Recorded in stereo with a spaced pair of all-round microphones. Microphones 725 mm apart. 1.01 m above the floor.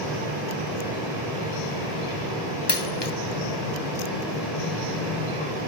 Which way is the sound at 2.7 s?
35° left (ahead or behind).